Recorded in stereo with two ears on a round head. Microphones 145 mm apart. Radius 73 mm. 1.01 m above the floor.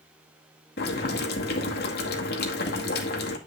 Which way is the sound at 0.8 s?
70° left (ahead or behind).